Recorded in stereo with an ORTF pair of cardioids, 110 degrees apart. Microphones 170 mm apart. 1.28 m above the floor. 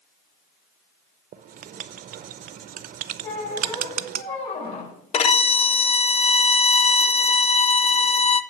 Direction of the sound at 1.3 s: 55° right.